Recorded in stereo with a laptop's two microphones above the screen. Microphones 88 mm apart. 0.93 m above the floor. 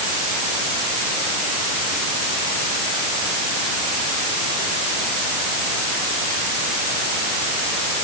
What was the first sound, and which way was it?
Only background noise.